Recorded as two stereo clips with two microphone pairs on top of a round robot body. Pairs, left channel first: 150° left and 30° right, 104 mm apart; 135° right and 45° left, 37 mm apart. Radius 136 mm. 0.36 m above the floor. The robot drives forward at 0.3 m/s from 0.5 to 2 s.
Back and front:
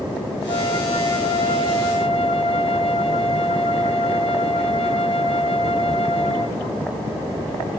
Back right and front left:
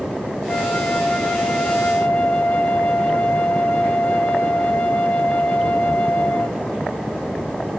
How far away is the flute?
About 2.5 m.